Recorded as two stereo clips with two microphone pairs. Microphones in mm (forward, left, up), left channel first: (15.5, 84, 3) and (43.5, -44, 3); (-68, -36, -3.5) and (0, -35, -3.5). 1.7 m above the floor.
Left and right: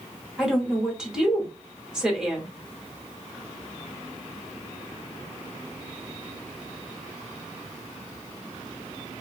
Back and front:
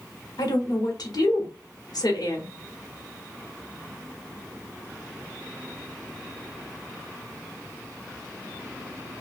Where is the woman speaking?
165° right, 0.9 m.